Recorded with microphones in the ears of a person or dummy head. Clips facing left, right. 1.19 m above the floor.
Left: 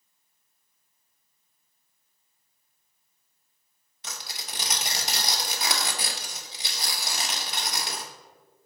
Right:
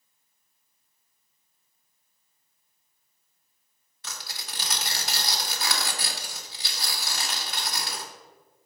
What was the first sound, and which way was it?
Tearing paper, 20° left (ahead or behind).